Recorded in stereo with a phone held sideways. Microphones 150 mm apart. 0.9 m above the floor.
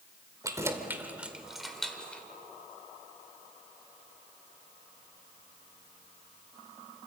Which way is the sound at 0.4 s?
20° right (ahead or behind).